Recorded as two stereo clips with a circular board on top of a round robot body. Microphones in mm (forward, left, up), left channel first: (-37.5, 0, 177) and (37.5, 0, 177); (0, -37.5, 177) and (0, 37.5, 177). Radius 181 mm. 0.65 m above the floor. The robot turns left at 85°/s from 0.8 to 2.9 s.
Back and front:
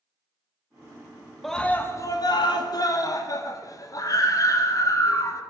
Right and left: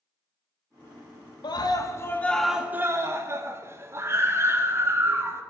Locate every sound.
1.4 s a scream: 95° right, 1.3 m; by 5.4 s 145° left, 1.3 m